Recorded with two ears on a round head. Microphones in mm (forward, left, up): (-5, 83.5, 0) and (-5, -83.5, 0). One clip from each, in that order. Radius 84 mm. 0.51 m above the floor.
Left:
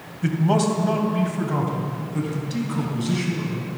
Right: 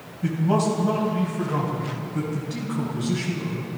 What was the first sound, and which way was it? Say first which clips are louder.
A man speaking: left 1 dB; 45° left (ahead or behind).